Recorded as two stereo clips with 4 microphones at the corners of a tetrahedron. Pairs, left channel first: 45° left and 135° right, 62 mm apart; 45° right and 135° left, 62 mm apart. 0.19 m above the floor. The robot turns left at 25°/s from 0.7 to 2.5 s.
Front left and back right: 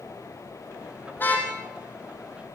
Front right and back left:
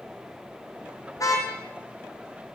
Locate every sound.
1.2 s a car horn: 15° right, 4.5 m; by 1.5 s 25° right, 4.5 m